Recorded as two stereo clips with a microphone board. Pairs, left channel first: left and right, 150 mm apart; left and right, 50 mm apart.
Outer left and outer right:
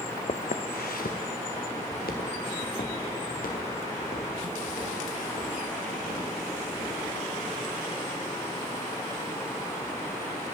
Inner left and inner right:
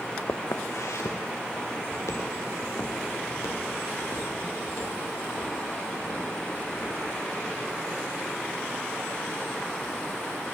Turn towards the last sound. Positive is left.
turn(degrees=65)  # may be behind; listen again after turning